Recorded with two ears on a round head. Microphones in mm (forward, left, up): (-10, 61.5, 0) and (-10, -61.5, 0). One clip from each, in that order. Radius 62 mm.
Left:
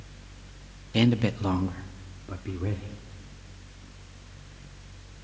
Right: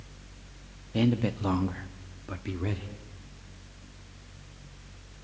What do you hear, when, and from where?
0.9 s a man speaking: 45° left (ahead or behind), 0.8 m; by 2.9 s 70° right (ahead or behind), 1.6 m